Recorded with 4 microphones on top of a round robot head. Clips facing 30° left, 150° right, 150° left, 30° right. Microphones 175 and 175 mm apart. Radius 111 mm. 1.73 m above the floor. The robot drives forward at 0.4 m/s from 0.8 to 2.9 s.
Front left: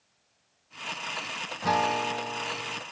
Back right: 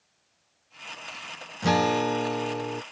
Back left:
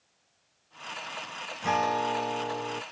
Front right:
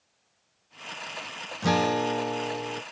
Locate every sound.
1.6 s a guitar: 85° right; by 2.8 s 120° right